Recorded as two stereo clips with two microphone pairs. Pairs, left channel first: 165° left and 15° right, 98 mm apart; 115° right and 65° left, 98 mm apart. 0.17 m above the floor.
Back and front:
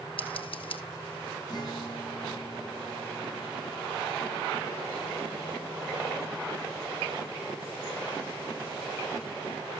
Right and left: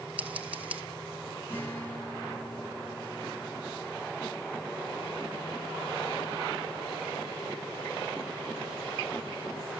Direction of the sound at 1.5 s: 175° right.